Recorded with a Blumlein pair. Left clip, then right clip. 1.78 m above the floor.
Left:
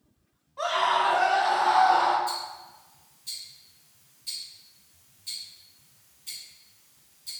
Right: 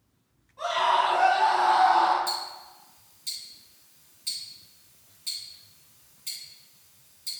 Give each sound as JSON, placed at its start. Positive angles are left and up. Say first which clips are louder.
{"t": 0.6, "sound": "a scream", "louder": "even", "azimuth_deg": 60, "distance_m": 1.8}
{"t": 2.3, "sound": "ticking", "louder": "right 1 dB", "azimuth_deg": -30, "distance_m": 1.9}